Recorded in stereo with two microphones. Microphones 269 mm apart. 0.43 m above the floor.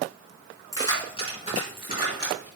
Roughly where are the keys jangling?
Centre.